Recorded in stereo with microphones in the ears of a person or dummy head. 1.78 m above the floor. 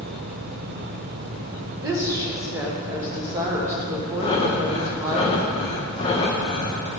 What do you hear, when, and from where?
1.8 s a woman speaking: 25° right (ahead or behind), 0.9 m
4.2 s breathing: 40° left (ahead or behind), 0.8 m